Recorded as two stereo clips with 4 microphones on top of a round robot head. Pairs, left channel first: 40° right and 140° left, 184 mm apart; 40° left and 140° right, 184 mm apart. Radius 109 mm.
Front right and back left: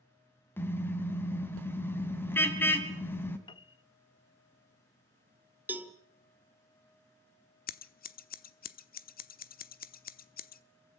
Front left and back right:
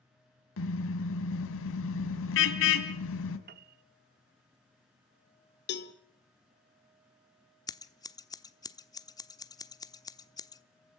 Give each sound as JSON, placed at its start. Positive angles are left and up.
{"t": 0.6, "sound": "a car horn", "azimuth_deg": 35, "distance_m": 2.0}
{"t": 3.5, "sound": "a piano", "azimuth_deg": -105, "distance_m": 0.8}
{"t": 5.7, "sound": "a cowbell", "azimuth_deg": 60, "distance_m": 1.3}
{"t": 7.7, "sound": "scissors", "azimuth_deg": -25, "distance_m": 1.0}